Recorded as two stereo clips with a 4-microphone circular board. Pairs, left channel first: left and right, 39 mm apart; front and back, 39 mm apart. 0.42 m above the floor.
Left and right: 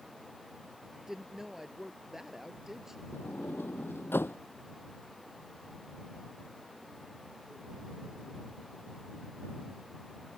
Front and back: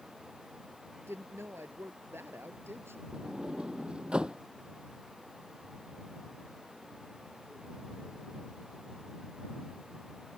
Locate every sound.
1.1 s a woman speaking: 170° right
3.1 s a sliding door: 115° left